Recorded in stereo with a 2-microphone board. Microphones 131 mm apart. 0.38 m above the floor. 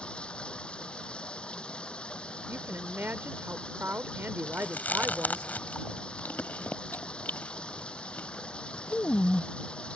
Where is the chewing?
15° left (ahead or behind).